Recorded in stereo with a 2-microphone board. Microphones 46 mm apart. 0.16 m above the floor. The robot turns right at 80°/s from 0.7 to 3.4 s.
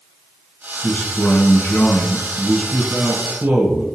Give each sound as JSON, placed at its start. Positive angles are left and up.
{"t": 0.8, "sound": "a man speaking", "azimuth_deg": 45, "distance_m": 2.0}